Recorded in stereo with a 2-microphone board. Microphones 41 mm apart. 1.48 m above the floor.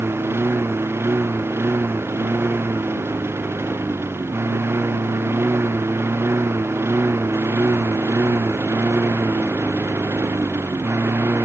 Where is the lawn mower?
70° right (ahead or behind); by 11.5 s 75° right (ahead or behind).